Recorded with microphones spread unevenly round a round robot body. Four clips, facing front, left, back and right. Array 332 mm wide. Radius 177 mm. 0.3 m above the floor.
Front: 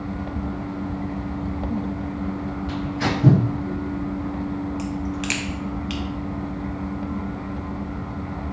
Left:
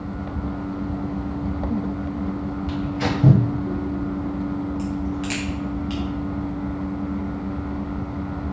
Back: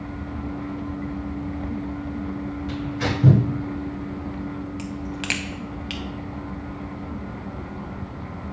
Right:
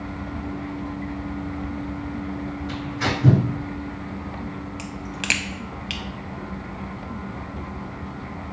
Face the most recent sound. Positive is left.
turn(degrees=-130)